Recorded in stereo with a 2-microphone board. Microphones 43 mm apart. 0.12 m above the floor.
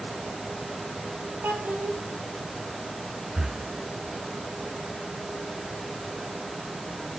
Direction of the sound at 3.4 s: 10° right (ahead or behind).